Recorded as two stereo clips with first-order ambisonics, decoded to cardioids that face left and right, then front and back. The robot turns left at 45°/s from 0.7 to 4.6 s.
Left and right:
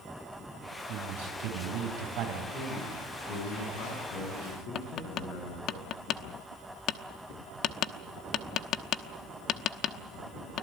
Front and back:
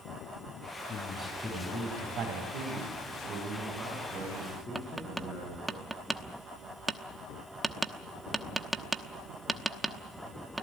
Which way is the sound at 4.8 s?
100° left.